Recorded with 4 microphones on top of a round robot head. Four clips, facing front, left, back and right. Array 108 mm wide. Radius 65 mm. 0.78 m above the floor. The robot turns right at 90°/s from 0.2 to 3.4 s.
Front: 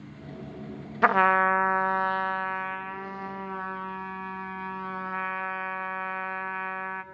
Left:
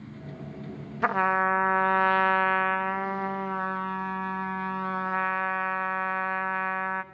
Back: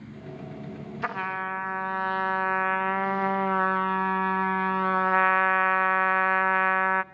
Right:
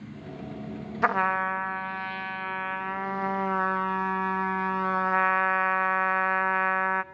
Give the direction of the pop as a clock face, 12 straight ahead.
I don't hear a pop.